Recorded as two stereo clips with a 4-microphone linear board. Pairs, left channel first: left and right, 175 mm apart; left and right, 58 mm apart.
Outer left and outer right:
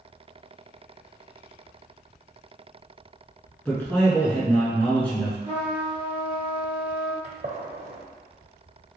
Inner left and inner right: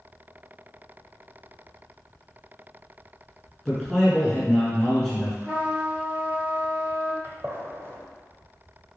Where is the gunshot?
45° right (ahead or behind), 0.8 m.